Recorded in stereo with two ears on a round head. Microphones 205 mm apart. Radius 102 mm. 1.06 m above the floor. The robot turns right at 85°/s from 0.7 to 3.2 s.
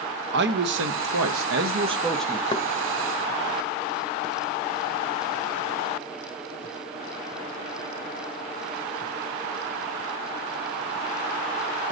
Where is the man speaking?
125° right, 1.0 m; by 2.4 s 20° left, 1.0 m.